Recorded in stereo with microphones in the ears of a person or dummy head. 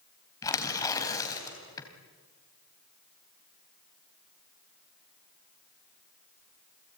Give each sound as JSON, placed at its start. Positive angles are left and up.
{"t": 0.4, "sound": "tearing paper", "side_deg": 20, "distance_m": 4.0}